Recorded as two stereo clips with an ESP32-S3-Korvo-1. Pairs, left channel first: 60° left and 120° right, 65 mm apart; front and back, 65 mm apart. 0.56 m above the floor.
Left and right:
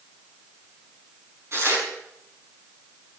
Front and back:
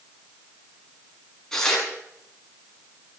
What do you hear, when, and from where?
1.5 s tearing paper: 80° right, 5.5 m